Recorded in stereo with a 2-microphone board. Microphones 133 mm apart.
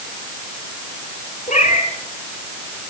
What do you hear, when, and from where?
1.5 s a cat meowing: 60° left (ahead or behind), 7 m